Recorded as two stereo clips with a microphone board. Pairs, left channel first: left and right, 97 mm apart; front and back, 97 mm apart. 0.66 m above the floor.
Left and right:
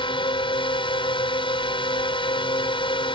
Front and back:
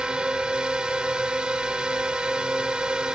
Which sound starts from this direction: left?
A drone, at 0.0 s.